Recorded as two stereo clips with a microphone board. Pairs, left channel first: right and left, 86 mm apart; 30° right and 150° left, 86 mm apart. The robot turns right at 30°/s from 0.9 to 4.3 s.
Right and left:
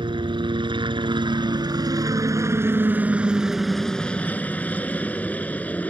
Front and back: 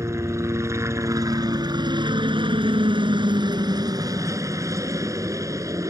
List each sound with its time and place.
0.0 s a helicopter: 100° left; by 5.9 s 160° right